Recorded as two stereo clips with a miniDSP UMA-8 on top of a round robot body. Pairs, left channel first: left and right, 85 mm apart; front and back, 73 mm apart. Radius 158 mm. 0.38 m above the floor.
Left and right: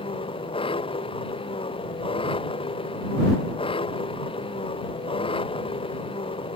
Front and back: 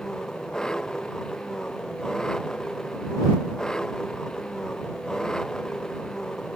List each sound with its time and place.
0.0 s an engine running: 80° left